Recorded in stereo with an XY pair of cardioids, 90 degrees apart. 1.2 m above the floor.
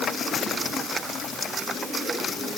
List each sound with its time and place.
Only background noise.